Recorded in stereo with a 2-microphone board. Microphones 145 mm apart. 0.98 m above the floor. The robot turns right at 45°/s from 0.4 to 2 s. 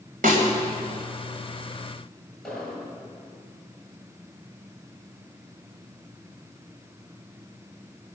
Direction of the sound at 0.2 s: 80° right.